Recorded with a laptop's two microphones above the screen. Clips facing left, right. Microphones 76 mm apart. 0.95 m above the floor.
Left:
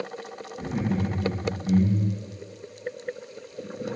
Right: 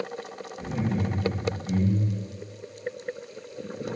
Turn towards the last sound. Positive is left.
turn(degrees=70)  # may be behind; listen again after turning